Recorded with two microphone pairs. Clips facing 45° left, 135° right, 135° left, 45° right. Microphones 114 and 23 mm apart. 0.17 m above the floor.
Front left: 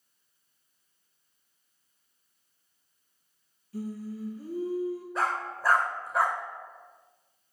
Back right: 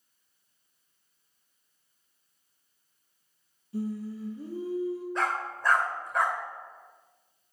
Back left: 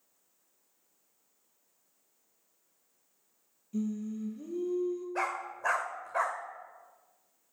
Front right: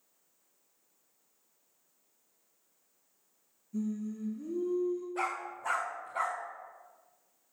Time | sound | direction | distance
3.7 | singing | 160° left | 2.0 m
5.2 | a dog barking | 125° left | 2 m